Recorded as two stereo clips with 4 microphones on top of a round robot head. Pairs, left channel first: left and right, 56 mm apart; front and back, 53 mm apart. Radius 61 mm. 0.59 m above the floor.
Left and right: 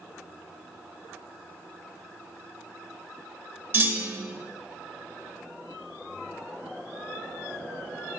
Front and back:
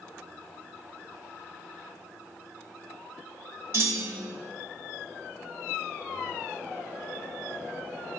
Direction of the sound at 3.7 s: 135° right.